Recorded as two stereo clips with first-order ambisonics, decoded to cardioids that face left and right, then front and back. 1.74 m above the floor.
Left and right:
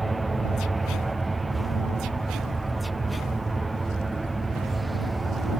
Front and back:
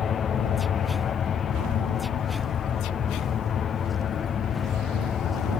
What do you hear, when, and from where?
0.0 s an aircraft: 20° right